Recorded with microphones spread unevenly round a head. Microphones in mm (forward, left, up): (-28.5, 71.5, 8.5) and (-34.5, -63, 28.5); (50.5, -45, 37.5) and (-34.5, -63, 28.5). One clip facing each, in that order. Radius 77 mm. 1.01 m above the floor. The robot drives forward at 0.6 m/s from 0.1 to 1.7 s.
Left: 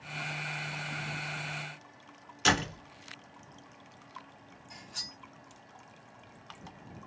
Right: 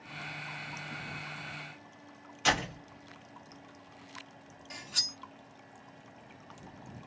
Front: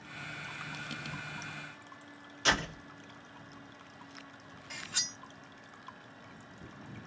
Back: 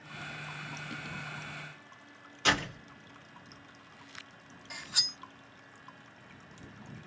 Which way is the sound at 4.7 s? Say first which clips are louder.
Right 3 dB, even; 90° right.